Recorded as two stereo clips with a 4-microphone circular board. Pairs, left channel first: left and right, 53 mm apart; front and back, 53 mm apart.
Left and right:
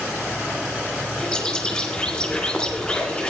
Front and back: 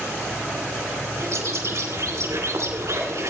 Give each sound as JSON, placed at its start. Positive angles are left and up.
{"t": 1.2, "sound": "a bird", "azimuth_deg": 165, "distance_m": 3.0}